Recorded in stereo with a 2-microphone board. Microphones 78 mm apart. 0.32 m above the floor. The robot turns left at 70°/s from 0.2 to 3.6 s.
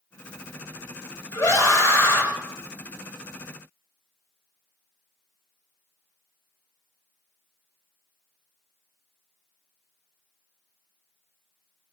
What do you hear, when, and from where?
1.3 s a scream: 110° left, 2 m; by 2.3 s 45° left, 2 m